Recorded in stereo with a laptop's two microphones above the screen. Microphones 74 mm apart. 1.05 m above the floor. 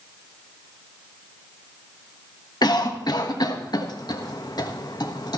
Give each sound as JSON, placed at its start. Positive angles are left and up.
{"t": 2.6, "sound": "a cough", "side_deg": 65, "distance_m": 1.2}